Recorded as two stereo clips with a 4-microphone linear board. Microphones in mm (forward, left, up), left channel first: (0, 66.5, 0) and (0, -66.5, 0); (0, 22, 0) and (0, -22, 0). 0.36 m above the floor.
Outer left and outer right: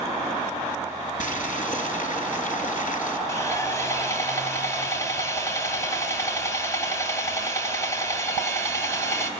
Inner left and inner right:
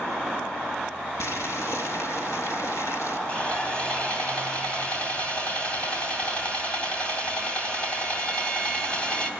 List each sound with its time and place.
1.2 s boiling: 80° left, 3.5 m
3.3 s sawing: 20° left (ahead or behind), 3 m